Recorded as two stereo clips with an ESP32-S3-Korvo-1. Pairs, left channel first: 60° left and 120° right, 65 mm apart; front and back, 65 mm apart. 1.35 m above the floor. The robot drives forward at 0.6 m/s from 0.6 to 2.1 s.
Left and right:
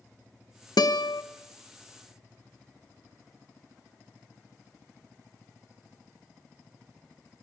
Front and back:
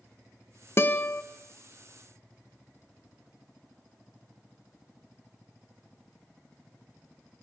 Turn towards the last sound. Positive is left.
turn(degrees=90)